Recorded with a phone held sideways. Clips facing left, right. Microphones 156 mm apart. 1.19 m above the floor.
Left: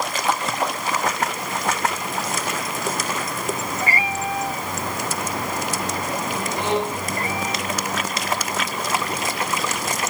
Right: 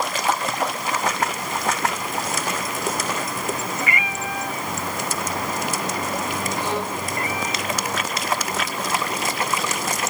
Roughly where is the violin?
Centre.